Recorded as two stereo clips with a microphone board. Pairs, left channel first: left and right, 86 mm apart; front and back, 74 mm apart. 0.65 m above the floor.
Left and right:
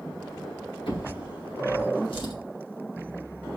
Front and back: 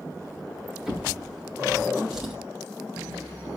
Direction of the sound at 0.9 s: 100° left.